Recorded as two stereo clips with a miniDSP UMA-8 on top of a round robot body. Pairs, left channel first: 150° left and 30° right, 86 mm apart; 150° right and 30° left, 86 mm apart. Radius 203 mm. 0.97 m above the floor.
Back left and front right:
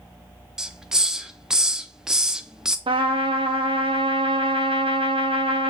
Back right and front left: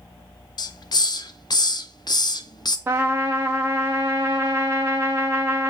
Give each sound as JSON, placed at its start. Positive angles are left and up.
{"t": 0.6, "sound": "a hiss", "azimuth_deg": -115, "distance_m": 0.9}
{"t": 2.9, "sound": "a trumpet", "azimuth_deg": -35, "distance_m": 0.5}